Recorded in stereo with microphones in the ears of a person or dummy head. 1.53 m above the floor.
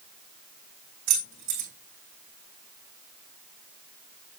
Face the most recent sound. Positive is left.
turn(degrees=-50)  # may be behind; listen again after turning